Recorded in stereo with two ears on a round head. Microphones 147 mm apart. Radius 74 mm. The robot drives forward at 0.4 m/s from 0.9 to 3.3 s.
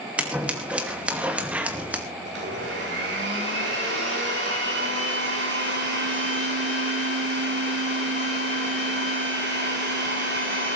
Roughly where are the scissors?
Centre.